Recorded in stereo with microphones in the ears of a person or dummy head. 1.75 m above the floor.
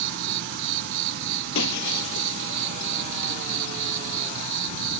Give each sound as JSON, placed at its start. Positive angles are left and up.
{"t": 0.0, "sound": "an insect", "side_deg": -65}
{"t": 1.6, "sound": "breaking glass", "side_deg": 70}